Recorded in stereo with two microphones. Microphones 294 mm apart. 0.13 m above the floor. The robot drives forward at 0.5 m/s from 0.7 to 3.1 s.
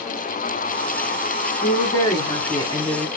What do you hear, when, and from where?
1.6 s a woman speaking: 15° left (ahead or behind), 1.3 m; by 3.1 s 10° left (ahead or behind), 1.7 m